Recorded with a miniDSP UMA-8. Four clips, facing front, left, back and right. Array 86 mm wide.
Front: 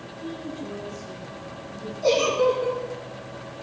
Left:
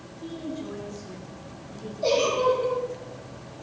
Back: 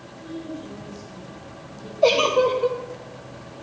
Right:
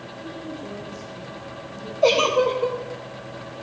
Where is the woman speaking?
70° left, 7.5 m.